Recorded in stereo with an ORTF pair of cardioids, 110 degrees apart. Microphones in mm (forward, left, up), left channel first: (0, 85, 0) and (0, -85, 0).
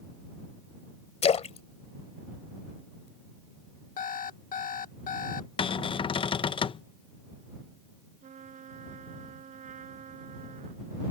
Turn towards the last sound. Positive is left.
turn(degrees=-40)